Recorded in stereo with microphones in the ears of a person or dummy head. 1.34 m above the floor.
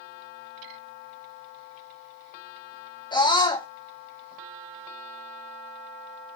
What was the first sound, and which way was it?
A scream, 25° left (ahead or behind).